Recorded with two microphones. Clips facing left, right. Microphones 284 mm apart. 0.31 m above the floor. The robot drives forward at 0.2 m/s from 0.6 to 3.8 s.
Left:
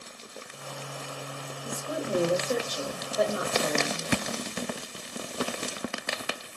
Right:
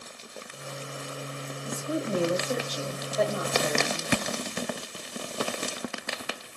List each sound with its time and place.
1.6 s a woman speaking: 15° left (ahead or behind), 1.1 m